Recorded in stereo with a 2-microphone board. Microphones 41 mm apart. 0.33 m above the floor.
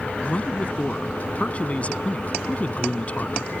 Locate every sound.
0.2 s a man speaking: 35° left (ahead or behind)